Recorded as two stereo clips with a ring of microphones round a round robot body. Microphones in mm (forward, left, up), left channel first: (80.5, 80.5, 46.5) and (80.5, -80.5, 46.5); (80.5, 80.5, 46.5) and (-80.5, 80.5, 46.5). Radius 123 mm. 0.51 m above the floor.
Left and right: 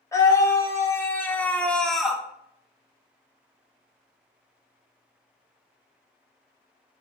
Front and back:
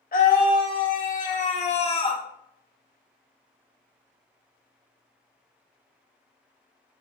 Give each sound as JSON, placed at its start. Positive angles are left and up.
{"t": 0.1, "sound": "a scream", "azimuth_deg": 20, "distance_m": 1.6}